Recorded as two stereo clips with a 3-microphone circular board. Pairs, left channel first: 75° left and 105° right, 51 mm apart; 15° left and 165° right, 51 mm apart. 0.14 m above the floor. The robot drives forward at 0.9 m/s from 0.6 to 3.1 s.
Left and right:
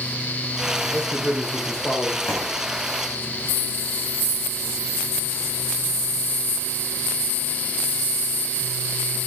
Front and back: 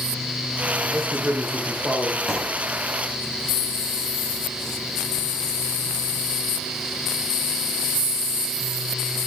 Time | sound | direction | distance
0.8 | a man speaking | 125° left | 9.5 m
2.3 | a thud | 110° left | 8 m